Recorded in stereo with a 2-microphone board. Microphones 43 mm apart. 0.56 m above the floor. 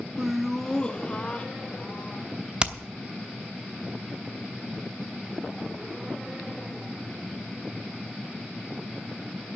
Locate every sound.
0.2 s laughter: 15° right (ahead or behind), 0.6 m; by 2.3 s 35° left (ahead or behind), 2.0 m
2.6 s hammering: 20° right (ahead or behind), 0.9 m